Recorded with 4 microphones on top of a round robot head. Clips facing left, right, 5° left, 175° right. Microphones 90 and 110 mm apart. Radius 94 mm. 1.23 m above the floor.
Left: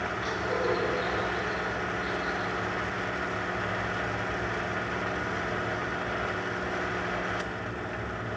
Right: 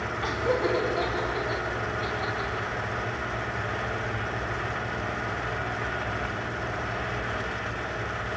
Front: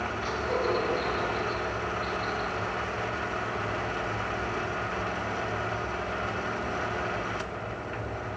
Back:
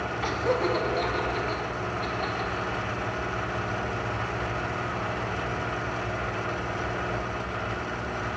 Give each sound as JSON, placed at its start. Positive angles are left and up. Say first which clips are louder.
{"t": 0.2, "sound": "laughter", "louder": "right 4 dB, back 3 dB", "azimuth_deg": -135, "distance_m": 3.5}